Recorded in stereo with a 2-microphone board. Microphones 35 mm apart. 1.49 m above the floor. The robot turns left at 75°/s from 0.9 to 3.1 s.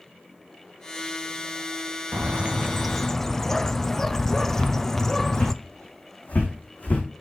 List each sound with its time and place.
2.1 s a bird: 120° right, 0.5 m; by 5.5 s 170° left, 0.5 m
4.5 s footsteps: 25° left (ahead or behind), 4 m; by 7.0 s 55° left (ahead or behind), 6 m